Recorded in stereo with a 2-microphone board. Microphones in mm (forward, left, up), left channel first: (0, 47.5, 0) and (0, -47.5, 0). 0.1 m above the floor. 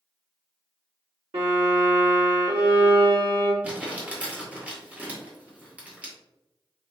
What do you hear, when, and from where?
1.3 s a violin: 80° right, 1.7 m
3.6 s crumpling: 15° right (ahead or behind), 1.7 m